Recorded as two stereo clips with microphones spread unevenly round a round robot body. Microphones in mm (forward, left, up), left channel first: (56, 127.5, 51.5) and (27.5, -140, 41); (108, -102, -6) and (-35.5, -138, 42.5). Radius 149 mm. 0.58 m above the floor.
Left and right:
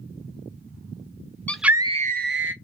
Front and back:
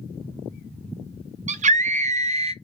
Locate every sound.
1.5 s a scream: 165° left, 0.6 m; by 2.5 s 105° right, 0.8 m